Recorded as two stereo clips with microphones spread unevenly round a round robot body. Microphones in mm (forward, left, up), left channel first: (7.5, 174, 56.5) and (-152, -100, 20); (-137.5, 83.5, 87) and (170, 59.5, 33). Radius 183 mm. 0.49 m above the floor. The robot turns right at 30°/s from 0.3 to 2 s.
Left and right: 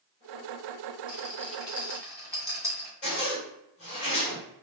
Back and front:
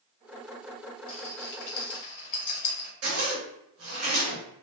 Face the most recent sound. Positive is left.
turn(degrees=-15)